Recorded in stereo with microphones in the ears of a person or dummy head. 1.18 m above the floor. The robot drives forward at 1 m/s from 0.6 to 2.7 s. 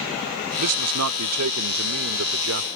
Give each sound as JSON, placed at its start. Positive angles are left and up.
{"t": 0.6, "sound": "a man speaking", "side_deg": -80}